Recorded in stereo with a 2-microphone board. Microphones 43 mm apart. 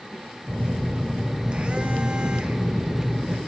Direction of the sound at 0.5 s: 25° right (ahead or behind).